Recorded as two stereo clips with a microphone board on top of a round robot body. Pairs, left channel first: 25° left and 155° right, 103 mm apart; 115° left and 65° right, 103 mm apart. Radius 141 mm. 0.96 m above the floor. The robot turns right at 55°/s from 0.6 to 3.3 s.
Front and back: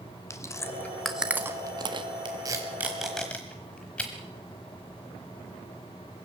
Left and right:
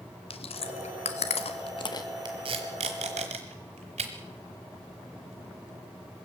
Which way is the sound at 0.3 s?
85° left.